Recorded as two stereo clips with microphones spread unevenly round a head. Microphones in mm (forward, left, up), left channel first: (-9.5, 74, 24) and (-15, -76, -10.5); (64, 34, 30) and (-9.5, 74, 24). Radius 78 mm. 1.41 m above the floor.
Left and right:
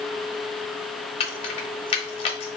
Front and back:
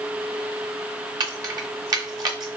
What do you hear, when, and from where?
1.2 s keys jangling: 120° left, 0.8 m